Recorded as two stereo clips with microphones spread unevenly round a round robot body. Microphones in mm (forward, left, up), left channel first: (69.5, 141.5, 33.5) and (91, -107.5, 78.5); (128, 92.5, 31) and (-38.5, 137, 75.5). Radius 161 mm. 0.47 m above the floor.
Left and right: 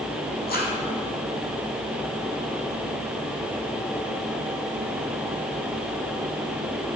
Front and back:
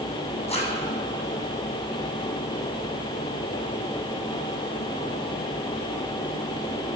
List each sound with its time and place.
0.5 s a zipper: 40° left, 4 m